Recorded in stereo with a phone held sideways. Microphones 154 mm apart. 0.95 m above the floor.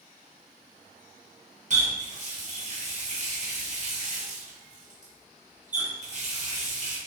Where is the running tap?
50° right (ahead or behind), 1.2 m.